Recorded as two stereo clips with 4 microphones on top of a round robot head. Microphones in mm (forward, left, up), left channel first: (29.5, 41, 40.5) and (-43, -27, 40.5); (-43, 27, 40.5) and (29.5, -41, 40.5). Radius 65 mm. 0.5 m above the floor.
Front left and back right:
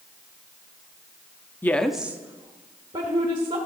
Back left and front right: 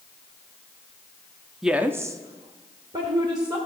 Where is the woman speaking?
35° left, 0.7 m; by 3.6 s 90° right, 2.0 m.